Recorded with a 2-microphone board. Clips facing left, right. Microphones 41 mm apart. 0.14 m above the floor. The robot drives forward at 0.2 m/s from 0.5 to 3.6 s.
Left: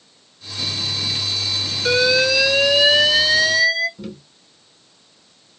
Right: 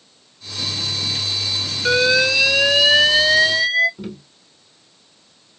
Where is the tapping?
20° right (ahead or behind), 1.1 m.